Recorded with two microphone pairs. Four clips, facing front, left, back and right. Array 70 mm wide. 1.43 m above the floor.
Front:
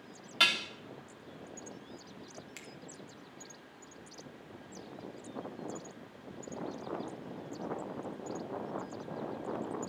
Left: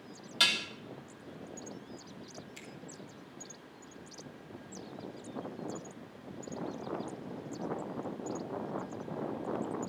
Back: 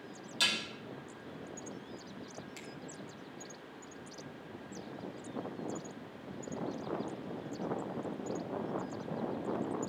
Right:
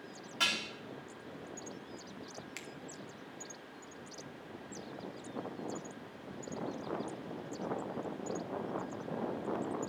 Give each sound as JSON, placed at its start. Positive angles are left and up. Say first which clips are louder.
{"t": 0.4, "sound": "dishes clattering", "louder": "left 3 dB, front 5 dB", "azimuth_deg": 0, "distance_m": 2.0}
{"t": 2.6, "sound": "a finger snap", "louder": "right 2 dB, back 2 dB", "azimuth_deg": -65, "distance_m": 1.9}